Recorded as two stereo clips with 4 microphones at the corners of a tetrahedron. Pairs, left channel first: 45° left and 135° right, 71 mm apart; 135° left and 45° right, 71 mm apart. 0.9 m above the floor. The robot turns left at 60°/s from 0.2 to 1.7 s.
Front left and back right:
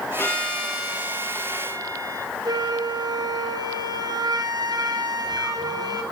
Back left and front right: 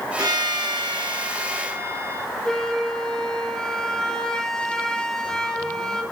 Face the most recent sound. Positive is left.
turn(degrees=-145)